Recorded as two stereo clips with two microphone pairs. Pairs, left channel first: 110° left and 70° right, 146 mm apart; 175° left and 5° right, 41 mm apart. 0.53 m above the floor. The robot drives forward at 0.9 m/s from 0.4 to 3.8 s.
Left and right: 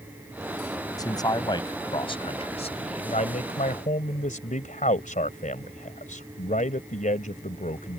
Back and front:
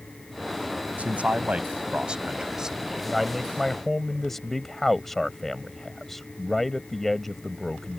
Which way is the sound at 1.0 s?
45° left.